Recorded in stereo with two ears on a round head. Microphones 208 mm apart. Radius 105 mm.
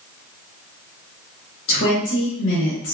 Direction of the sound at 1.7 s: 65° left (ahead or behind).